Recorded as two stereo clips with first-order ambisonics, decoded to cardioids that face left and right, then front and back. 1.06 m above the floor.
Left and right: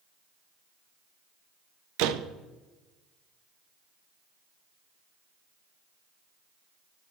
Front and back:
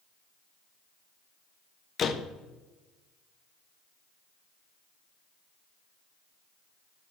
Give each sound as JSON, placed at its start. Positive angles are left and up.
{"t": 2.0, "sound": "a door slam", "azimuth_deg": -65, "distance_m": 0.5}